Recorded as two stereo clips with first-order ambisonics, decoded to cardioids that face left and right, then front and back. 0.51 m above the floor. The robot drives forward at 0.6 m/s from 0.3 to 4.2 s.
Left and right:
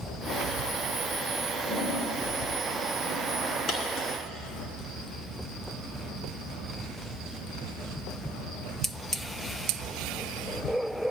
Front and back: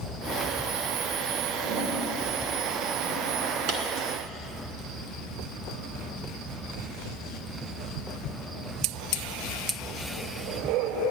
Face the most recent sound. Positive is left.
turn(degrees=155)